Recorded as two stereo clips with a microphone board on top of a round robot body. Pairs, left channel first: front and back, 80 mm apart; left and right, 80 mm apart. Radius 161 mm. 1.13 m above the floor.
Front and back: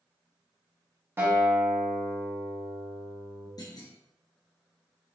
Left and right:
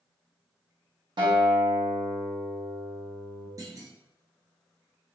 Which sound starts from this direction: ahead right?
A clunk, at 3.6 s.